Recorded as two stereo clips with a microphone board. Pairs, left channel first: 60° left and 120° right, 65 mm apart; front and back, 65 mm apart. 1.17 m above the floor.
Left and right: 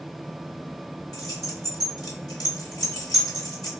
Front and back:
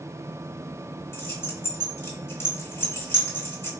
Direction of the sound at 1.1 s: 50° left.